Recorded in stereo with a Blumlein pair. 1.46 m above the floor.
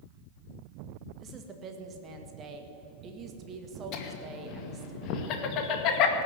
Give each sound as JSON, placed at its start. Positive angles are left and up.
{"t": 1.2, "sound": "a woman speaking", "azimuth_deg": -30, "distance_m": 1.8}
{"t": 3.9, "sound": "laughter", "azimuth_deg": 40, "distance_m": 2.0}